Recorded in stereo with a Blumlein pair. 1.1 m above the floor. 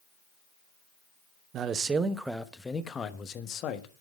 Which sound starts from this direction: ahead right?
A man speaking, at 1.5 s.